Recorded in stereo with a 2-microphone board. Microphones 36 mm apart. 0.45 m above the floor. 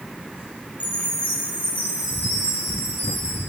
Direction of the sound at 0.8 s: 65° left (ahead or behind).